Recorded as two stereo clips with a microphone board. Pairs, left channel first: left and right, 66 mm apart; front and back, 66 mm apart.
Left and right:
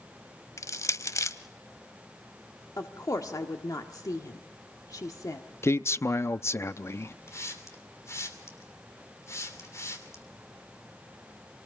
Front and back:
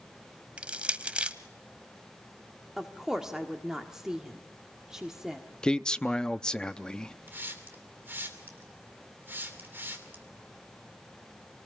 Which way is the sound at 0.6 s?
110° left.